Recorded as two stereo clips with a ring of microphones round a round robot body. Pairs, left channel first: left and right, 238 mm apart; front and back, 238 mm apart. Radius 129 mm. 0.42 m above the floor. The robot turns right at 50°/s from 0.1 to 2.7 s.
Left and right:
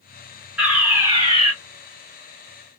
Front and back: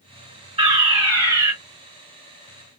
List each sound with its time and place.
0.6 s a fire alarm: 175° right, 1.8 m; by 1.5 s 125° right, 1.8 m